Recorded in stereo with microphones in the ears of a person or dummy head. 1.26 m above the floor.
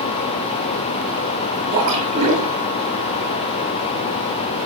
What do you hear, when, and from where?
1.7 s a splash: 30° right (ahead or behind), 10 m